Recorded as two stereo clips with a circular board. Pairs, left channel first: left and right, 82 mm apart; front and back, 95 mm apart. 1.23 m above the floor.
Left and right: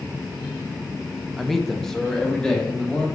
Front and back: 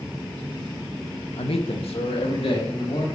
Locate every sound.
1.4 s a man speaking: straight ahead, 1.1 m; by 3.0 s 10° left, 3.5 m